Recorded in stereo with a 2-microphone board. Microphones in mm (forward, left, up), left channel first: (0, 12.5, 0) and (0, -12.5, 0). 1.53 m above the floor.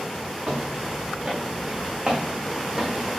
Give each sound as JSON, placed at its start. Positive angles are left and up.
{"t": 0.5, "sound": "footsteps", "side_deg": -45, "distance_m": 6.0}